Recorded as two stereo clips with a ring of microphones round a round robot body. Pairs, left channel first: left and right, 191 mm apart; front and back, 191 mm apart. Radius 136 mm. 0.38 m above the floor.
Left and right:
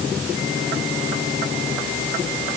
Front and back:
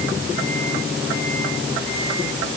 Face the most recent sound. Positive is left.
No sound to turn to.